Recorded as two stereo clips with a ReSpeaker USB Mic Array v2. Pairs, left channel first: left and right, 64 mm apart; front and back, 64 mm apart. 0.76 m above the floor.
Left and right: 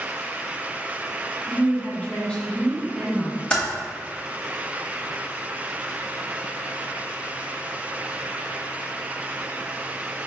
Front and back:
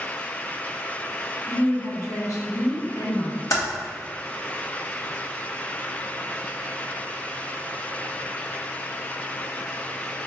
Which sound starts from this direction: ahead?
Typing on a keyboard, at 3.5 s.